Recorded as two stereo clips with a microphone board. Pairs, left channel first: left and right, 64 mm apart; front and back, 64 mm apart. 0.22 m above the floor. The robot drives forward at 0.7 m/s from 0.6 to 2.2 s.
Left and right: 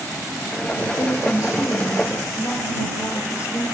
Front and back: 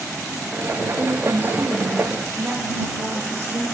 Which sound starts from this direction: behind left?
A woman speaking, at 1.0 s.